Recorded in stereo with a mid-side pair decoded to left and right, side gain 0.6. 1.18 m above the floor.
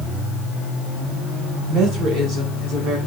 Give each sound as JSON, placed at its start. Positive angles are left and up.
{"t": 1.7, "sound": "a woman speaking", "azimuth_deg": -65, "distance_m": 6.5}